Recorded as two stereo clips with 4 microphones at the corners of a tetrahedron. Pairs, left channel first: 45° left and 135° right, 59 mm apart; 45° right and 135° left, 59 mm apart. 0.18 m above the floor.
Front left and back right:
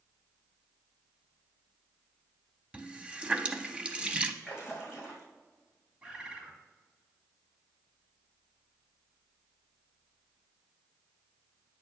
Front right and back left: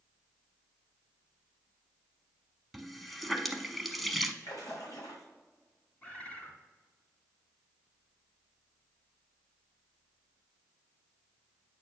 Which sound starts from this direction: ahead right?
A splash, at 4.4 s.